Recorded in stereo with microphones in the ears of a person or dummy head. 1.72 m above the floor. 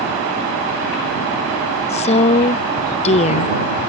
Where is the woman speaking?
35° left (ahead or behind).